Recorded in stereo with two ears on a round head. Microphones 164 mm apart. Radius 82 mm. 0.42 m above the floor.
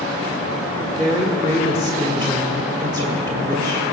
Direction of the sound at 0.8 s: 20° right (ahead or behind).